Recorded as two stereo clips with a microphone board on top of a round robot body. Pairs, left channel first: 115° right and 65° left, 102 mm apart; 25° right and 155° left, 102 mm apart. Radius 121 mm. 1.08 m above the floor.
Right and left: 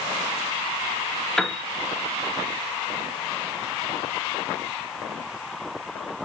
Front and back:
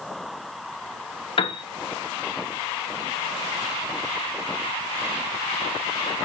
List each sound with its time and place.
1.4 s a piano: 25° right, 0.6 m